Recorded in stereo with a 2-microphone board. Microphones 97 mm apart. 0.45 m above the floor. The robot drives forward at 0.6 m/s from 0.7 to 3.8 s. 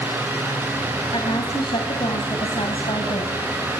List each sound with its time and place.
1.1 s a woman speaking: 65° left (ahead or behind), 4 m; by 3.4 s 70° left (ahead or behind), 3.5 m